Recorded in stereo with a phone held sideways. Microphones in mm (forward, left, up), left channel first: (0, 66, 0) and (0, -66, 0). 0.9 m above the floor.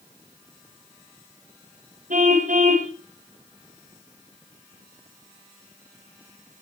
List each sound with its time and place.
2.1 s a car horn: 80° right, 3 m